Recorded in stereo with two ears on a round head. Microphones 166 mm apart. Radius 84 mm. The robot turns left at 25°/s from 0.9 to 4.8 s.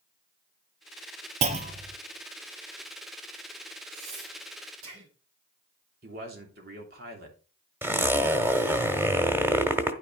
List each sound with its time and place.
1.4 s a clunk: 35° right (ahead or behind), 0.9 m; by 2.0 s 40° right (ahead or behind), 0.9 m
3.9 s breathing: 55° right (ahead or behind), 6 m; by 5.1 s 75° right (ahead or behind), 6 m
6.0 s a man speaking: 50° right (ahead or behind), 3 m
7.8 s a zipper: 10° right (ahead or behind), 1.1 m